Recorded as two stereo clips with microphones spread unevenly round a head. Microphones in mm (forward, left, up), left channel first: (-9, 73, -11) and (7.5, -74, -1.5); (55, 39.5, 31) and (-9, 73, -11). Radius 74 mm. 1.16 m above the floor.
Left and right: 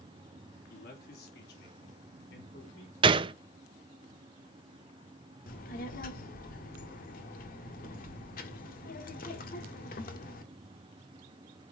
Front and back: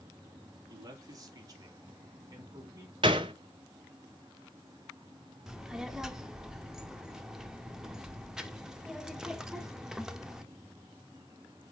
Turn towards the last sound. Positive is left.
turn(degrees=60)